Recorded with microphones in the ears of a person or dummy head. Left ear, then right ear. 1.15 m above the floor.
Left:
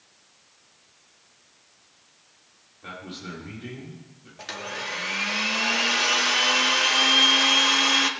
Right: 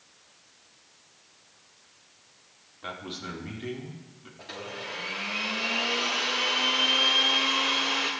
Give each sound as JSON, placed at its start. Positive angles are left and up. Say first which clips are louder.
{"t": 2.8, "sound": "a man speaking", "louder": "right 1 dB", "side_deg": -35, "distance_m": 2.5}
{"t": 4.4, "sound": "a blender", "louder": "left 5 dB", "side_deg": 60, "distance_m": 1.6}